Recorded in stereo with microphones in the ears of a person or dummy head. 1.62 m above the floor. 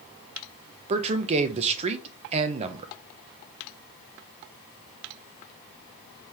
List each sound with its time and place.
0.9 s a man speaking: 35° right (ahead or behind), 0.6 m